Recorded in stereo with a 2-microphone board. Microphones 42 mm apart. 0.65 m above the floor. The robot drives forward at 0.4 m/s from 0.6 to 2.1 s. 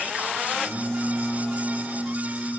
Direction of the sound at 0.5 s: 45° left (ahead or behind).